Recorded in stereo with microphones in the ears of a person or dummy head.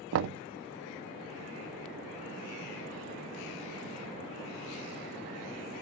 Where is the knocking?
65° right (ahead or behind), 0.5 m.